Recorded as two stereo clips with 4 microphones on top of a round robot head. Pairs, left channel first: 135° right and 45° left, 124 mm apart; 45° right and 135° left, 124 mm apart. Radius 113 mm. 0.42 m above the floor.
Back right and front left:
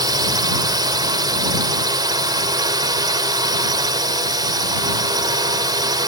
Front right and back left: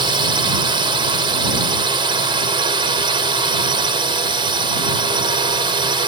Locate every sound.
0.0 s a drone: 95° left